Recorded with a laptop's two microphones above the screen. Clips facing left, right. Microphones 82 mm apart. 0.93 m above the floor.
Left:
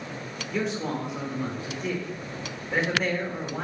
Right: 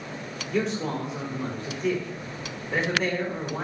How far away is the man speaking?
About 2.5 m.